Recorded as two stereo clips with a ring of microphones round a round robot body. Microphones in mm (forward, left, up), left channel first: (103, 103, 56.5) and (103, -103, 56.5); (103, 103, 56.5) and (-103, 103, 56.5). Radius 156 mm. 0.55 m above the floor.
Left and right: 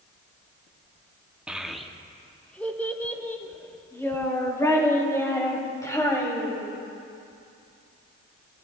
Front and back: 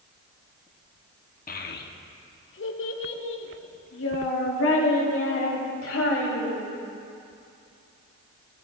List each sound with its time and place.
1.5 s a child speaking: 5° right, 0.9 m; by 6.7 s 15° left, 3.5 m